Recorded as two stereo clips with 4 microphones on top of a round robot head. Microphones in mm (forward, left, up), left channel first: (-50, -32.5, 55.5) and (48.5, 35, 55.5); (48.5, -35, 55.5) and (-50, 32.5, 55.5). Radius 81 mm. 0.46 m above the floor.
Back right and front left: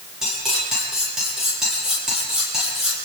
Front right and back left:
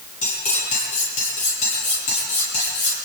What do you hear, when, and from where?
0.2 s cutlery clinking: 50° right, 9.5 m